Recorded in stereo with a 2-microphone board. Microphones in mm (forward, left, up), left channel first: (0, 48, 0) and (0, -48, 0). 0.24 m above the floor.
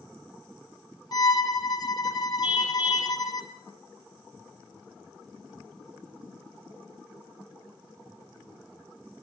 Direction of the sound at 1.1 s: 45° left (ahead or behind).